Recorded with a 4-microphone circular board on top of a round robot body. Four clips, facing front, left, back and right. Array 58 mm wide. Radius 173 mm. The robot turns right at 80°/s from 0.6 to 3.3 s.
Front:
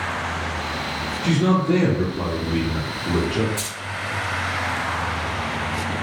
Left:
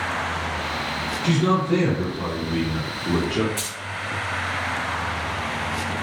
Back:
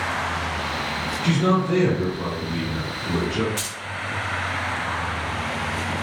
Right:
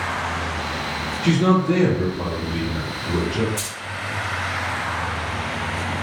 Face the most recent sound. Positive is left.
turn(degrees=155)